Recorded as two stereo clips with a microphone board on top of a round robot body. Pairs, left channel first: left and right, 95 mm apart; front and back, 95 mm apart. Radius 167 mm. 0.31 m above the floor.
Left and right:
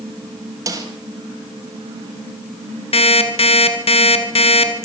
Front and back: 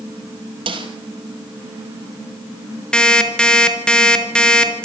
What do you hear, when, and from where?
0.7 s a snare drum: 150° right, 4.5 m
2.9 s an alarm clock: 80° left, 3.5 m